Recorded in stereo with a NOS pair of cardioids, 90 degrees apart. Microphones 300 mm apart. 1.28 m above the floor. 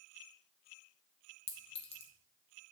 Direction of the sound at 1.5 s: 20° left.